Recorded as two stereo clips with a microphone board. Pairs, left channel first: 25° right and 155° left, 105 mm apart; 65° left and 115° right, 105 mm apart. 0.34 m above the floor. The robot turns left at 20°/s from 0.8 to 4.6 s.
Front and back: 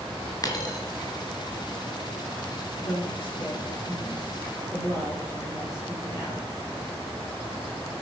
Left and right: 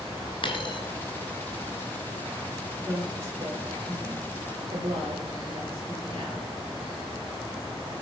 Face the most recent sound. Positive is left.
turn(degrees=-80)